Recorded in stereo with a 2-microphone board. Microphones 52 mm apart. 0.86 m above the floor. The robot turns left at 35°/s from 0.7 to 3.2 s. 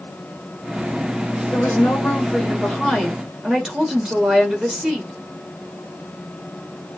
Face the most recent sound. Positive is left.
turn(degrees=-15)